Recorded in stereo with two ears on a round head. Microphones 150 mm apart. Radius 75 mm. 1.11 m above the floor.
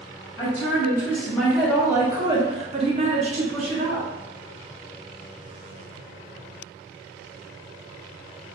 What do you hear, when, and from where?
0.4 s a woman speaking: 20° left (ahead or behind), 1.1 m; by 4.1 s 40° right (ahead or behind), 1.2 m